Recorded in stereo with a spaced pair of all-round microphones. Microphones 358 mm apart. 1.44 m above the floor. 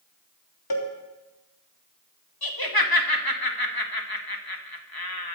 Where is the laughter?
80° left, 2 m.